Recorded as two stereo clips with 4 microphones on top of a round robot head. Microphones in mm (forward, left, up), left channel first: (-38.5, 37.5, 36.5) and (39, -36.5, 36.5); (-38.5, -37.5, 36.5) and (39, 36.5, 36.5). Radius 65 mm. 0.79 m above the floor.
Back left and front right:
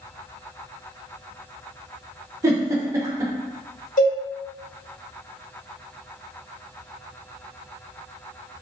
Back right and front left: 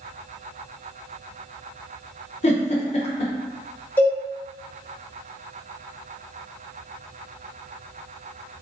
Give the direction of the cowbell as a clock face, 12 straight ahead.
7 o'clock.